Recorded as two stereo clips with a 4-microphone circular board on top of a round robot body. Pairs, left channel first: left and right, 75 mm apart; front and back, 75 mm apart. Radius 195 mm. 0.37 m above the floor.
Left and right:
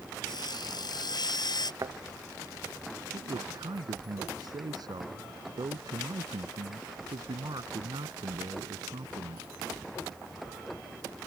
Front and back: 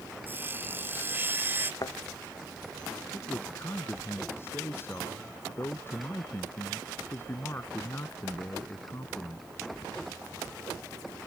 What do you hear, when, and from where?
0.3 s sawing: 115° left
1.8 s a thud: 40° right
3.1 s a man speaking: 60° right